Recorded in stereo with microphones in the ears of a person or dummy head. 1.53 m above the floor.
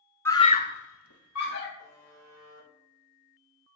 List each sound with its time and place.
0.2 s a scream: 10° left (ahead or behind), 1.1 m; by 1.7 s 60° left (ahead or behind), 1.4 m
1.8 s a buzzer: 20° left (ahead or behind), 3 m